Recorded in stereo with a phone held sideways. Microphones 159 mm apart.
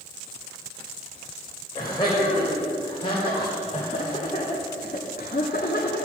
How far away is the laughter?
About 3 m.